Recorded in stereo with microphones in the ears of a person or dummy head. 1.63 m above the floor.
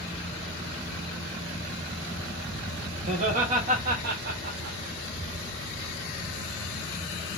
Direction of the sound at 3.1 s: 40° right (ahead or behind).